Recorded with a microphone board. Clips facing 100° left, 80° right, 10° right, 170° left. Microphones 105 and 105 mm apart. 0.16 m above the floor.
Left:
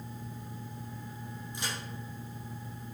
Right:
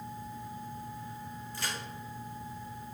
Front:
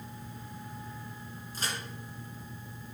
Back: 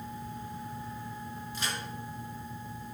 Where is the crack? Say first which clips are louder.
Even, even; 30° left, 2.5 m.